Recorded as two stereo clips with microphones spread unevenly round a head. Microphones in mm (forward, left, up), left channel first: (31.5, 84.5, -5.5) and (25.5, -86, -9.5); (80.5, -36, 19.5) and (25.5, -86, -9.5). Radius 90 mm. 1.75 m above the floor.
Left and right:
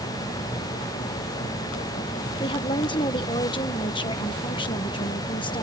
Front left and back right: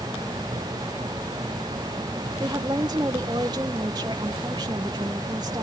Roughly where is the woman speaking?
Behind left.